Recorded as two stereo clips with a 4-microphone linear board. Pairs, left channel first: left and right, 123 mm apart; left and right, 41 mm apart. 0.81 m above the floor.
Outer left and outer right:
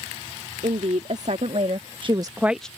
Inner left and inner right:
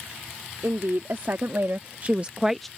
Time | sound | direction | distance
0.6 | a woman speaking | 75° right (ahead or behind) | ?